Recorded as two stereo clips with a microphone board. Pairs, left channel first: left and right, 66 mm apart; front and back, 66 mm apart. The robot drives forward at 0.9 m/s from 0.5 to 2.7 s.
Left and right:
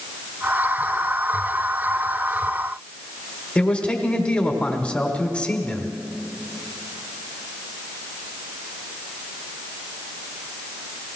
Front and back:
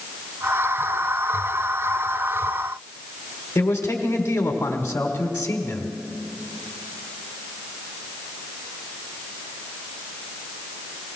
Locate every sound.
3.5 s a man speaking: 35° left, 1.3 m